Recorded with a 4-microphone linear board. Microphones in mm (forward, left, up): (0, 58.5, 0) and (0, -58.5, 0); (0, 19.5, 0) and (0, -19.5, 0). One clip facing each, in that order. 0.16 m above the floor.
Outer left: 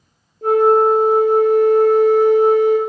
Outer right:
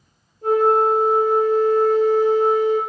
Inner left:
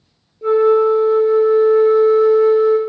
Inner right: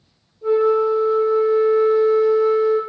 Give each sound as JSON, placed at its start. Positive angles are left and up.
{"t": 0.4, "sound": "a flute", "side_deg": 75, "distance_m": 0.5}